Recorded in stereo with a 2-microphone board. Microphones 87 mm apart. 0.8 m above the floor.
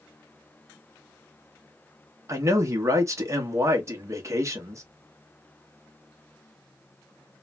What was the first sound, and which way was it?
A man speaking, 35° right (ahead or behind).